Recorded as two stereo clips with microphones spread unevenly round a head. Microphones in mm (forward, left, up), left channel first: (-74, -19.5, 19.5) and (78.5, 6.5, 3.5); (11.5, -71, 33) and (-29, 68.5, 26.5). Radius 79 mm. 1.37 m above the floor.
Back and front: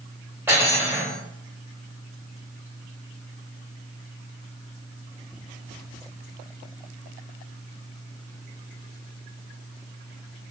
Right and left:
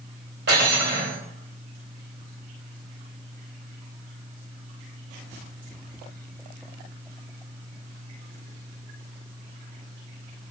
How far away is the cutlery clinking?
About 1.3 m.